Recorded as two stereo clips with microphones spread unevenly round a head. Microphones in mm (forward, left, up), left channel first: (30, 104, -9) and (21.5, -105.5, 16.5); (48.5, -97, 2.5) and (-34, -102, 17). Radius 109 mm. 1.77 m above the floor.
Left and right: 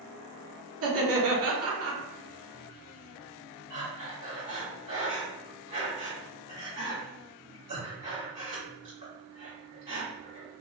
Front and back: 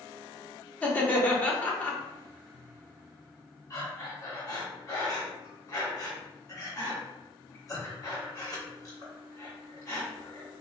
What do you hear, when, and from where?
0.8 s laughter: 70° right, 1.2 m
3.7 s breathing: 45° right, 1.8 m